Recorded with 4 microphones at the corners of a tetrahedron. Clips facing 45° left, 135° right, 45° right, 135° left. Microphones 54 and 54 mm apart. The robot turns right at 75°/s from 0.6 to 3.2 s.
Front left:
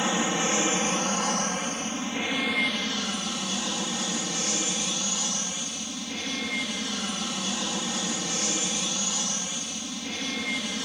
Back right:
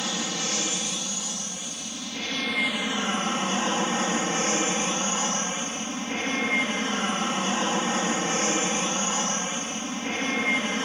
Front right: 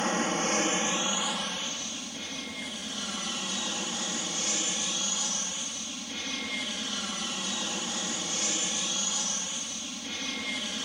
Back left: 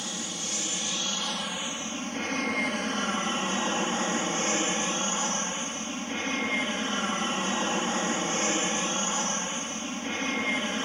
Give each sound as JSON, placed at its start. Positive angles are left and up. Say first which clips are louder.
{"t": 0.0, "sound": "an aircraft", "louder": "front left 5 dB, front right 9 dB", "azimuth_deg": -15}